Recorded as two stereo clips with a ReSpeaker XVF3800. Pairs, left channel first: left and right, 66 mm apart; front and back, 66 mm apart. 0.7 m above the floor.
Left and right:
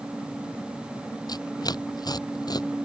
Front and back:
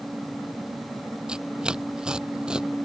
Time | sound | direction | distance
1.3 | tearing paper | 100° left | ?